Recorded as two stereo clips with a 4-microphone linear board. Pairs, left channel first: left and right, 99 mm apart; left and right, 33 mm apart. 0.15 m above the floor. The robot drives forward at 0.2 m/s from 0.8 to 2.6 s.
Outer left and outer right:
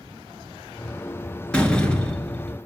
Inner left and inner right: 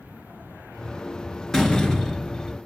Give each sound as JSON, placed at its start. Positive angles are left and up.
{"t": 1.5, "sound": "a door slam", "side_deg": 10, "distance_m": 2.0}